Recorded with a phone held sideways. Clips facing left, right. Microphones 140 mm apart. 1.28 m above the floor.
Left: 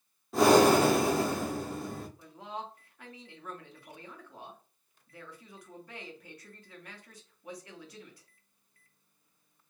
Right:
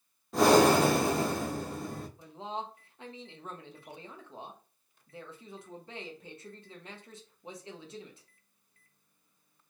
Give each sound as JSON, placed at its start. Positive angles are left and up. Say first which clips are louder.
{"t": 0.3, "sound": "breathing", "louder": "left 1 dB", "side_deg": 0, "distance_m": 0.6}
{"t": 2.2, "sound": "a man speaking", "louder": "right 3 dB", "side_deg": -25, "distance_m": 0.8}